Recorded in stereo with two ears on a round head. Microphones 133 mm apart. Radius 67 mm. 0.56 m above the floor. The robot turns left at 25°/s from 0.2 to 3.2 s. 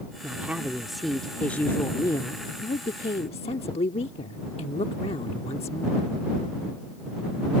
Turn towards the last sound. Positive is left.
turn(degrees=125)